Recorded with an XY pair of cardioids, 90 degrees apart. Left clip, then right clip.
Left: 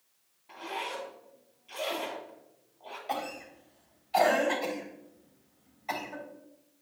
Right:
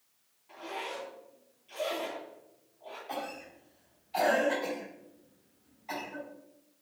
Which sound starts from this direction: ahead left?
A zipper, at 0.5 s.